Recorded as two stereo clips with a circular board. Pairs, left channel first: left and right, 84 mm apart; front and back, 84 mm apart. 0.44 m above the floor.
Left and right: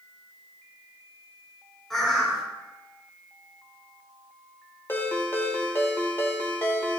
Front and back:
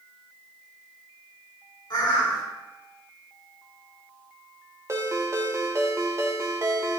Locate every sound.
1.9 s a bird: 5° left, 2 m
4.9 s a ringtone: 140° left, 1.0 m